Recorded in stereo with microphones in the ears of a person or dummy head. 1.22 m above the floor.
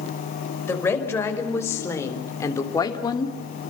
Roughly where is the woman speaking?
Centre.